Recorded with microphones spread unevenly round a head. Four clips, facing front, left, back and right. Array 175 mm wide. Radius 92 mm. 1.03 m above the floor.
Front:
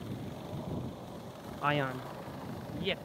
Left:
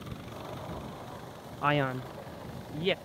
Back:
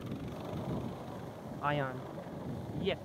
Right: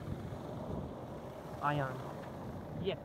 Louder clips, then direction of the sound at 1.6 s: Left 7 dB, front 3 dB; 55° left.